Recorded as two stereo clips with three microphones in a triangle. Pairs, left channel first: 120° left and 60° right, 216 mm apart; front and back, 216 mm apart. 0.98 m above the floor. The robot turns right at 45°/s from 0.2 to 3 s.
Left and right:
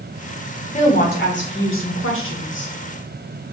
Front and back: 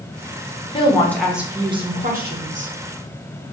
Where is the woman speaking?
65° left, 0.7 m; by 2.7 s 155° left, 0.7 m.